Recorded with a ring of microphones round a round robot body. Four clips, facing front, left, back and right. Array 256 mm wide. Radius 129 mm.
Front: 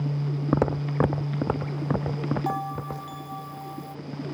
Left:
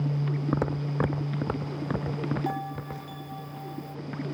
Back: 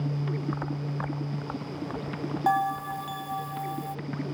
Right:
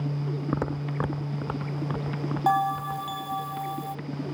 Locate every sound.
0.5 s footsteps: straight ahead; by 3.2 s 20° left
2.5 s a bell: 125° right